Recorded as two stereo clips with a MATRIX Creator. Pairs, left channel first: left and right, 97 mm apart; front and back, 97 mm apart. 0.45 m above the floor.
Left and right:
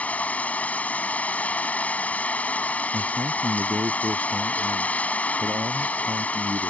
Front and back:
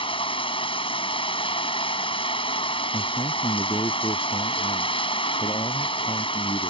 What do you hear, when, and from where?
0.0 s running water: 15° left
2.9 s a man speaking: 45° right